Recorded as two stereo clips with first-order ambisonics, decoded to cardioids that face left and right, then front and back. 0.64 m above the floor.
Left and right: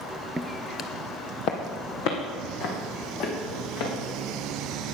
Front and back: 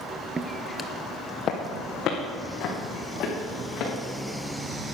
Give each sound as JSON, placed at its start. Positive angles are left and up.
{"t": 0.4, "sound": "footsteps", "azimuth_deg": -150, "distance_m": 0.6}